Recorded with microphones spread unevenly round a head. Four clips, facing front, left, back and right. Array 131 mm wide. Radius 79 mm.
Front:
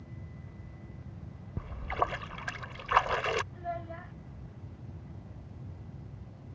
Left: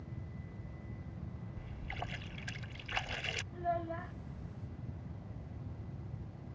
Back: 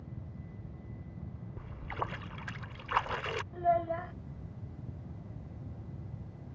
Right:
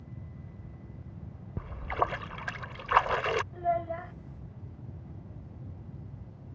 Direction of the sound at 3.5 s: 140° right.